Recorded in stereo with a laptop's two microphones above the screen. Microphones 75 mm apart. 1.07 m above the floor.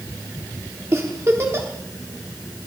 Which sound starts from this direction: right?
A giggle, at 0.9 s.